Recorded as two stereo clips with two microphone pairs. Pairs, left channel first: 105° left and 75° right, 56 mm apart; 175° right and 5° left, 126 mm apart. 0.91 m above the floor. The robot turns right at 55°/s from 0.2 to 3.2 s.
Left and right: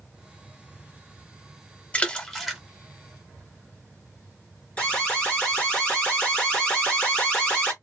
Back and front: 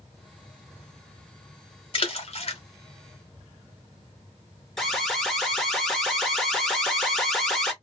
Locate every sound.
1.9 s a splash: 160° left, 1.0 m; by 2.6 s 165° right, 1.0 m
4.8 s an alarm: 105° left, 1.3 m